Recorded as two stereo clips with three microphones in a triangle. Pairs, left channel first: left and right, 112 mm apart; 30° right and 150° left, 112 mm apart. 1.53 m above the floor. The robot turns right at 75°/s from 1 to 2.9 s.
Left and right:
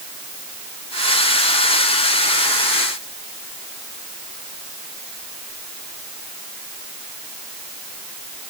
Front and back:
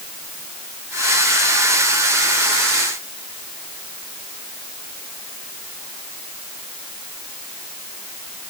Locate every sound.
Only background noise.